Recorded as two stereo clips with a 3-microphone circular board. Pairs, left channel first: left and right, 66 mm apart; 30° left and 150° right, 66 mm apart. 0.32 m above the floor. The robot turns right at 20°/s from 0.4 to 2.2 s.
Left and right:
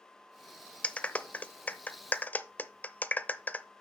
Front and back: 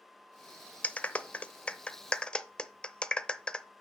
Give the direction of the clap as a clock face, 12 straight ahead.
10 o'clock.